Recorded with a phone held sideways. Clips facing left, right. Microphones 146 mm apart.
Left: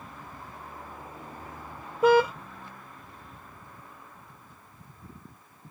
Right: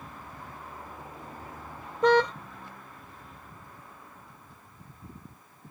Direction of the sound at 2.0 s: 10° left (ahead or behind).